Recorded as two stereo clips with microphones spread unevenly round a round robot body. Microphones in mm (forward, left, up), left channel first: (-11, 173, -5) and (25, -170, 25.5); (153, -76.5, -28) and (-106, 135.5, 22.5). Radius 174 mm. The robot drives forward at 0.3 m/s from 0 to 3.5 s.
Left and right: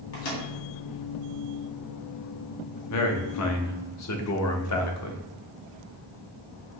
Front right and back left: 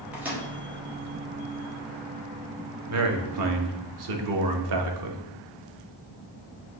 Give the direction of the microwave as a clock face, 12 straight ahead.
10 o'clock.